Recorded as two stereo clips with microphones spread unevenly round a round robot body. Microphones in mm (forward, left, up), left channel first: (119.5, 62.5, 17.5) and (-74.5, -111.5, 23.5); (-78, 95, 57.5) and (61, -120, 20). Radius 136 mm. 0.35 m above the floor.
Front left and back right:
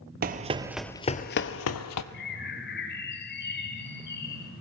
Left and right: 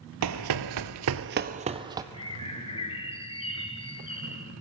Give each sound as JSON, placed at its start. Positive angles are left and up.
{"t": 0.2, "sound": "running footsteps", "azimuth_deg": -85, "distance_m": 0.7}
{"t": 2.1, "sound": "a bird", "azimuth_deg": 55, "distance_m": 1.5}